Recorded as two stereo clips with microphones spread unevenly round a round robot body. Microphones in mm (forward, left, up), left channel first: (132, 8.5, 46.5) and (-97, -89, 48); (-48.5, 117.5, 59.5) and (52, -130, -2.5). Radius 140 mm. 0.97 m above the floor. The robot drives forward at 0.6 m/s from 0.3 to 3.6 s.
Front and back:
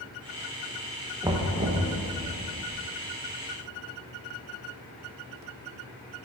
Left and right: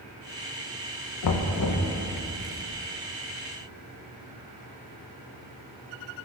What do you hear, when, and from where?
1.2 s knocking: 125° left, 0.7 m; by 1.9 s 145° left, 1.0 m